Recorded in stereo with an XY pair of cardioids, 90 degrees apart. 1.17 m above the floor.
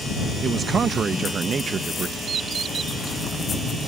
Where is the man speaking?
50° right.